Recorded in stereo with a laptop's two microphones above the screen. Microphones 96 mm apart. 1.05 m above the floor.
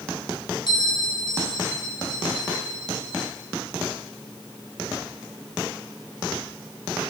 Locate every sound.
0.7 s a bell: 55° left (ahead or behind), 1.5 m